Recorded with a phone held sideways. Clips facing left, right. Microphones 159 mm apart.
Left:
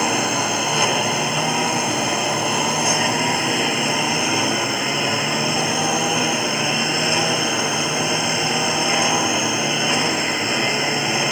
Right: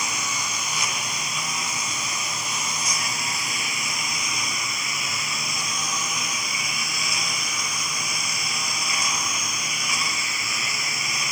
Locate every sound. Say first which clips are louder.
0.0 s a lawn mower: left 12 dB; 60° left (ahead or behind)